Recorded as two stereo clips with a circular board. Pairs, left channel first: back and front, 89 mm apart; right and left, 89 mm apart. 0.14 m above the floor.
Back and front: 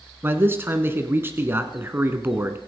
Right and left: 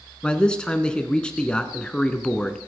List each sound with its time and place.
0.2 s a man speaking: 20° right, 1.3 m